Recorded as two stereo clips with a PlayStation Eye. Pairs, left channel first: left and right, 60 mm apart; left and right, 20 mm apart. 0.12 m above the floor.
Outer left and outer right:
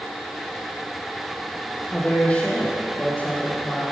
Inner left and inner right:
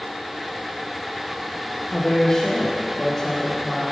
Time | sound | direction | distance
1.9 | a woman speaking | 20° left (ahead or behind) | 3 m